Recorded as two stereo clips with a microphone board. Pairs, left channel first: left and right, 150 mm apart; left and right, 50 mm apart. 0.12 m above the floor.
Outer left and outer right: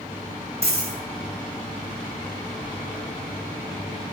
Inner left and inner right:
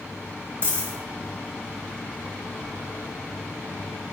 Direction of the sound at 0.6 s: 45° right (ahead or behind).